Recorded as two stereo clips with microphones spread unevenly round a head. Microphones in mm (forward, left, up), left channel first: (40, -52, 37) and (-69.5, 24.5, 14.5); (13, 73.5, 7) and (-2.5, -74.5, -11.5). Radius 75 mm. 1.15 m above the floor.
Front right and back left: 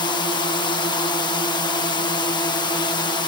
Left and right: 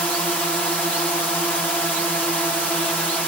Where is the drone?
Straight ahead.